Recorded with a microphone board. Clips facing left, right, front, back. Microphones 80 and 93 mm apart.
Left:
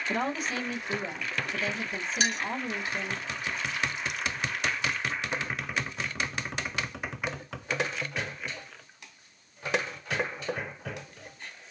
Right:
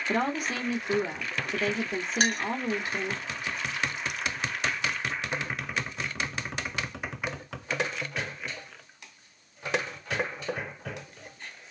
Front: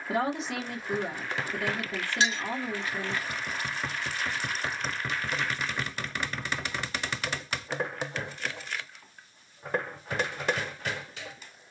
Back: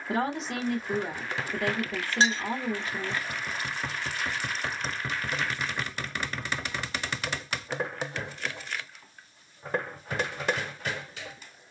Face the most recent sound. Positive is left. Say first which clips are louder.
# right 2 dB, back 3 dB
turn(degrees=-125)